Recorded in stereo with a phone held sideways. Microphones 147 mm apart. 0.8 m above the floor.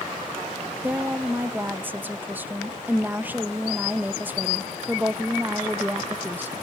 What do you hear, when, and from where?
0.8 s a woman speaking: 10° right (ahead or behind), 0.6 m